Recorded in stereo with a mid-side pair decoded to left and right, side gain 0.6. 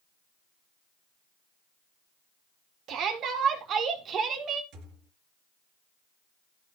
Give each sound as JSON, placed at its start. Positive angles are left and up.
{"t": 2.9, "sound": "a shout", "azimuth_deg": -55, "distance_m": 3.5}
{"t": 4.7, "sound": "a thud", "azimuth_deg": -60, "distance_m": 3.5}